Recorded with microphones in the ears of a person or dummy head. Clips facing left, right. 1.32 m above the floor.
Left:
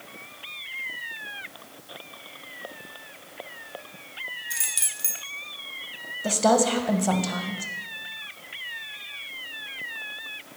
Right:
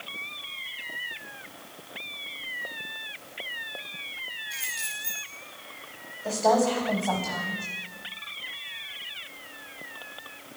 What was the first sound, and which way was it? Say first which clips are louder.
Keys jangling: even; 45° left (ahead or behind).